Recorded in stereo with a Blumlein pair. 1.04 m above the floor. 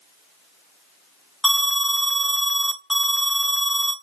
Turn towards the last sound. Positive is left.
turn(degrees=-5)